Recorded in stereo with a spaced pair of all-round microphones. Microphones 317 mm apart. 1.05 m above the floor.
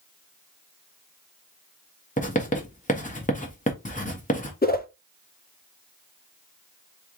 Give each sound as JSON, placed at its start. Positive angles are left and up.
{"t": 2.2, "sound": "writing", "side_deg": 25, "distance_m": 1.2}
{"t": 4.6, "sound": "a whoosh", "side_deg": 30, "distance_m": 0.6}